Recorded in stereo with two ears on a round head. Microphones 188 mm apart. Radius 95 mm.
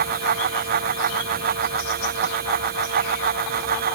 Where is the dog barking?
I don't hear a dog barking.